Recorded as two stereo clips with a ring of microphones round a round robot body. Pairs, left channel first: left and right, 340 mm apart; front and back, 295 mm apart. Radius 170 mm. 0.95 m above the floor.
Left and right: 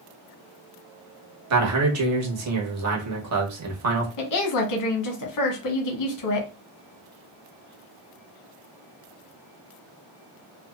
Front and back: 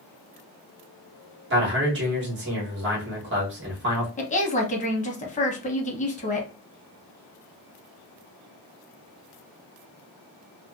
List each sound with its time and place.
1.5 s a man speaking: 130° right, 1.1 m
4.2 s a woman speaking: 65° left, 0.9 m